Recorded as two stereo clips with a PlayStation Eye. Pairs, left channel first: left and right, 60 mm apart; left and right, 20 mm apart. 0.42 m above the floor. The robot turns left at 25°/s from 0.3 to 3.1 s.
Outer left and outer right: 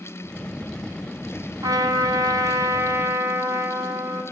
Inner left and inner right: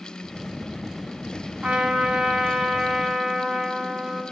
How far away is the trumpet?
About 3.5 m.